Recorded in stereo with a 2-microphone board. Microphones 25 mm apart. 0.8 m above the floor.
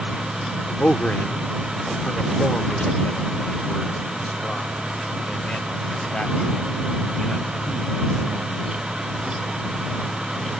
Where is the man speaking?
75° left (ahead or behind); by 9.6 s 45° left (ahead or behind).